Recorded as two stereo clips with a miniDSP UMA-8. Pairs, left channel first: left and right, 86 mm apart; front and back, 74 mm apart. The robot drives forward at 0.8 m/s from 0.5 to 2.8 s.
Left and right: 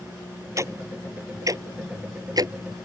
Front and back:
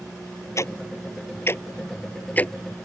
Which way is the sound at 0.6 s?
45° right.